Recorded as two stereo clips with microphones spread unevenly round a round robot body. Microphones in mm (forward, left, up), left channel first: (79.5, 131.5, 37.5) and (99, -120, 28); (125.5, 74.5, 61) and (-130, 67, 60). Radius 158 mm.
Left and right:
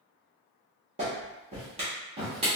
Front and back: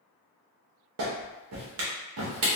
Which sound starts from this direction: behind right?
A clap, at 1.0 s.